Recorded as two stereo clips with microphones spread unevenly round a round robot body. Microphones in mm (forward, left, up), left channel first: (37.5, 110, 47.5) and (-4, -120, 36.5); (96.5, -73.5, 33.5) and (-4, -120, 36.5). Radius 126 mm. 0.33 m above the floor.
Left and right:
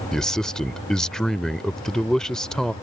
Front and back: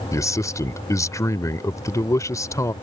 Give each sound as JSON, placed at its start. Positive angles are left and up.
{"t": 0.1, "sound": "a man speaking", "azimuth_deg": -10}